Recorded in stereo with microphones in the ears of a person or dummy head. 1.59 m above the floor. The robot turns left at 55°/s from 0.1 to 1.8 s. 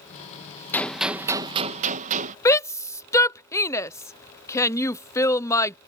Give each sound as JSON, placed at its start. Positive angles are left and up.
{"t": 0.7, "sound": "a gunshot", "azimuth_deg": 10}
{"t": 2.5, "sound": "a shout", "side_deg": 15}